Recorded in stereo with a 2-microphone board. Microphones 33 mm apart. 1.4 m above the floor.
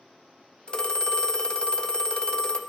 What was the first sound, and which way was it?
A phone ringing, 30° left (ahead or behind).